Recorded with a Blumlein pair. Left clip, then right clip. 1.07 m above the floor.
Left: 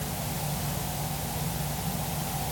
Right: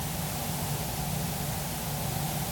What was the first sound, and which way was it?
Only background noise.